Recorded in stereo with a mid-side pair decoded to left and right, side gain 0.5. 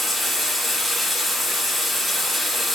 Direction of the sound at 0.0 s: 5° left.